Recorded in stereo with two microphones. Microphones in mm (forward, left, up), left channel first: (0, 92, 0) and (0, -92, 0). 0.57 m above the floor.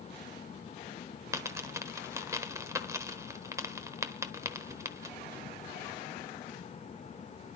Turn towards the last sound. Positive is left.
turn(degrees=-15)  # may be behind; listen again after turning